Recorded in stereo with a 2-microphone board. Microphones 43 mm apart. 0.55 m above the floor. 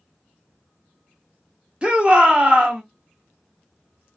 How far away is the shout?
About 1.2 m.